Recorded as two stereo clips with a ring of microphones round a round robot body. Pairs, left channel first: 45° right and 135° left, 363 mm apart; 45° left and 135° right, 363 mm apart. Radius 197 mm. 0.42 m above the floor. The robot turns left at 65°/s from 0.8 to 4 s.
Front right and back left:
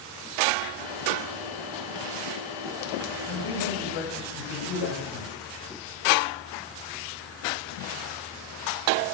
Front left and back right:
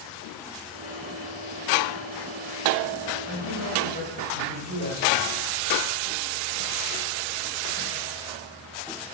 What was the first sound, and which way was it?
A man speaking, 25° left.